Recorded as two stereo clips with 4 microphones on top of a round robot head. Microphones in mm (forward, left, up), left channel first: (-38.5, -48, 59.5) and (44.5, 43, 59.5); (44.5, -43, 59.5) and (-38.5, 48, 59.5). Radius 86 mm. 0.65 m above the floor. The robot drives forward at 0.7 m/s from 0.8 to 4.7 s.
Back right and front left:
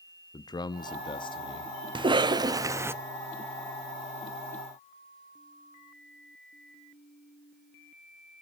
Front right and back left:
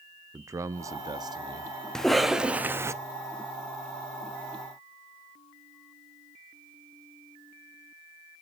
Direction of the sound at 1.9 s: 35° left.